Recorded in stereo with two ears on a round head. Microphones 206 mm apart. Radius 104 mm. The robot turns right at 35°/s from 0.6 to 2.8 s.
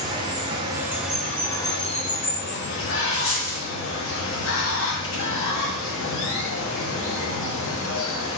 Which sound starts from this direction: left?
A dropped coin, at 3.1 s.